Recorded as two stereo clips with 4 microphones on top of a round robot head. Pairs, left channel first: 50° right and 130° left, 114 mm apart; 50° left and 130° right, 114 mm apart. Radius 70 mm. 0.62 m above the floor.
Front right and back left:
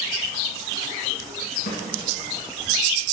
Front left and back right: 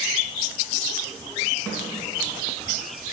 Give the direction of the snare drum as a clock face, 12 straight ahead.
1 o'clock.